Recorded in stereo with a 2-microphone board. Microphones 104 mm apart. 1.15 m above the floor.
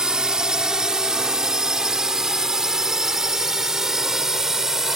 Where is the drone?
5° right (ahead or behind).